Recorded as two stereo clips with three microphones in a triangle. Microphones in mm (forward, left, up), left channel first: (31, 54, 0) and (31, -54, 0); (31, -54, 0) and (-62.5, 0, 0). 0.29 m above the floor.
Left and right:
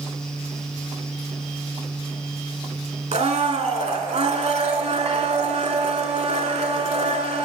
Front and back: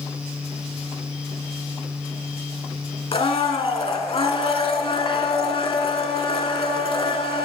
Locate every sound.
3.1 s a blender: 65° right, 0.6 m